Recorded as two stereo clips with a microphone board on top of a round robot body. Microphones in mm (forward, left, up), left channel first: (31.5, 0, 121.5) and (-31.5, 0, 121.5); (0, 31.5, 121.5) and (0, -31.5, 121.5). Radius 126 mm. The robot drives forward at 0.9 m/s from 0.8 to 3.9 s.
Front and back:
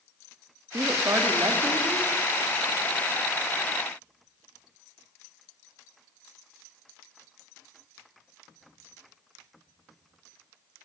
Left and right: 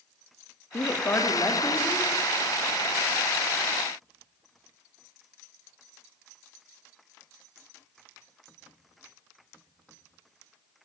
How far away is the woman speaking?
About 1.7 m.